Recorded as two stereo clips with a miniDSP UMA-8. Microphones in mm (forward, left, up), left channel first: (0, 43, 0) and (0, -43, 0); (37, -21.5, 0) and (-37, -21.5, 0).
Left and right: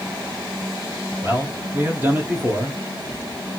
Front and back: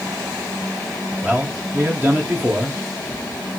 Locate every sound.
1.2 s a man speaking: 135° right, 1.7 m